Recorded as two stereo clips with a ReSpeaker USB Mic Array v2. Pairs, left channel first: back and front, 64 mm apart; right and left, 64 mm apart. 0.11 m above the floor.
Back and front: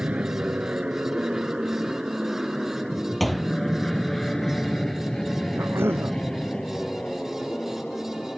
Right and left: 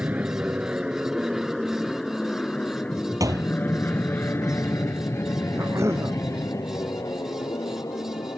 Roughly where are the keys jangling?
No keys jangling in this recording.